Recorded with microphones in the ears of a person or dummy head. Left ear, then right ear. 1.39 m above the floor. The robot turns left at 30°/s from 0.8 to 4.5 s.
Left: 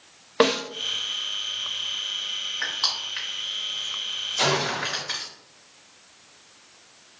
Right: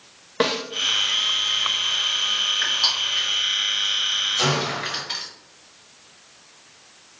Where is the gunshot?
55° left (ahead or behind), 1.5 m; by 5.0 s 60° left (ahead or behind), 1.5 m.